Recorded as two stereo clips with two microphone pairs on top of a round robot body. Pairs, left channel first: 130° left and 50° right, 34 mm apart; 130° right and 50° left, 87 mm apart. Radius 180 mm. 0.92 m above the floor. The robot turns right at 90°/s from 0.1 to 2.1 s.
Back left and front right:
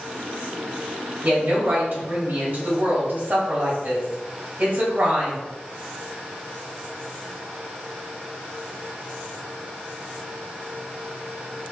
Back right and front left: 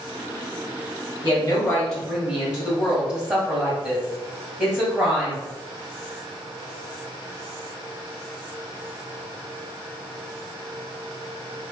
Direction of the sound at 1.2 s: 105° right.